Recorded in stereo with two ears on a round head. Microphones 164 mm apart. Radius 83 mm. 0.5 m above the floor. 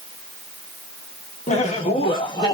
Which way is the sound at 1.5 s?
35° left (ahead or behind).